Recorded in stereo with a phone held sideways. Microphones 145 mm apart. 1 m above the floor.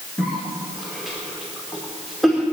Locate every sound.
0.2 s a cough: centre (ahead or behind), 2.5 m